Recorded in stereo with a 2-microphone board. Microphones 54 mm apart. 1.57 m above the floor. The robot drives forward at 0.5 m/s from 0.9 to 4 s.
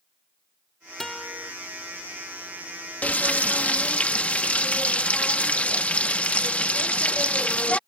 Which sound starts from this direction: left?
Frying, at 3.0 s.